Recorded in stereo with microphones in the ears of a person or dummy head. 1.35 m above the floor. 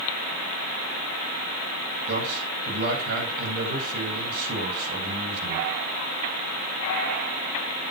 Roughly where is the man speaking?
Right.